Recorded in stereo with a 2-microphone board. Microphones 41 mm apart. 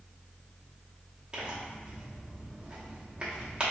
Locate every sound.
1.3 s tearing paper: 25° right (ahead or behind), 0.9 m